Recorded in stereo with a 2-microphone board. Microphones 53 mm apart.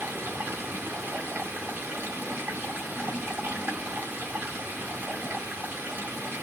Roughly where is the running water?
Right.